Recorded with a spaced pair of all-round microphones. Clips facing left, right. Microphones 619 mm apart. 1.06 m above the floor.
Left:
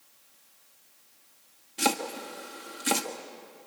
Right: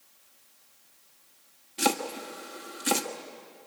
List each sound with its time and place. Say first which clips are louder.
1.8 s chopping: right 1 dB; centre (ahead or behind), 1.2 m